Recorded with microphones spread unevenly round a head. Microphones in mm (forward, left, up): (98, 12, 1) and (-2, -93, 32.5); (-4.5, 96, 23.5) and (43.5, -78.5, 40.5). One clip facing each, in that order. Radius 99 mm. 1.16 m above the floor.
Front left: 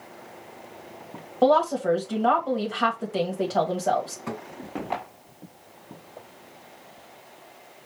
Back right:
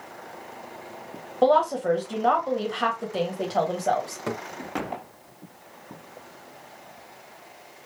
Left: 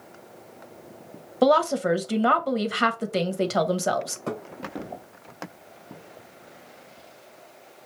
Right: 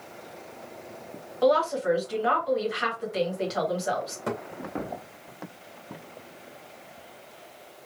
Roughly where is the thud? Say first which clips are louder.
Back right 3 dB, right 3 dB; behind right.